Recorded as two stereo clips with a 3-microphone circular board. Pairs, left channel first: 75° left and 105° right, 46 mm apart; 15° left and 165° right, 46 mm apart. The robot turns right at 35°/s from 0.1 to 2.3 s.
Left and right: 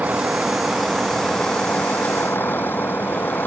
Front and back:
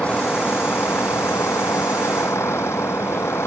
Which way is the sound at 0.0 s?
45° right.